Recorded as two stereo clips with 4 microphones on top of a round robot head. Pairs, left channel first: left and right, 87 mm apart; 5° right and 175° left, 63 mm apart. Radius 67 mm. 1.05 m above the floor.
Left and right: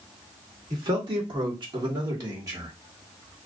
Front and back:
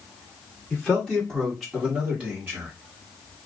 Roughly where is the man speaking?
Right.